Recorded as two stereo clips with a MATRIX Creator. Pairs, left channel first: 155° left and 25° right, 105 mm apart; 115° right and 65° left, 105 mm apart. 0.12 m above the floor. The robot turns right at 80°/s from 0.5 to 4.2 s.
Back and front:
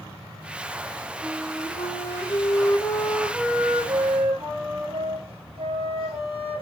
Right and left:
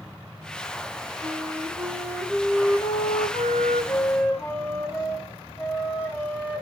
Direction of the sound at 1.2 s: 80° left.